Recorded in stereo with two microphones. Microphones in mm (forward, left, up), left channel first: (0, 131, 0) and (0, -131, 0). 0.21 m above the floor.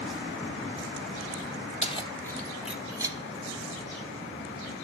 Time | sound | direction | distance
1.8 | keys jangling | 25° left (ahead or behind) | 0.7 m